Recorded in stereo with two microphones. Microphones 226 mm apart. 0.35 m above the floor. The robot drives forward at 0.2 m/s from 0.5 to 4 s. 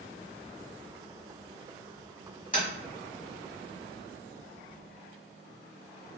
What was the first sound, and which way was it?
Tapping, 35° left (ahead or behind).